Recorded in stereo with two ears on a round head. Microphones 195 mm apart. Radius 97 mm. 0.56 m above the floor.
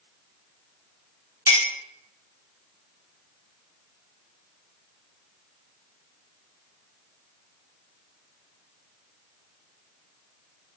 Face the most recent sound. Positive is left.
turn(degrees=-10)  # may be behind; listen again after turning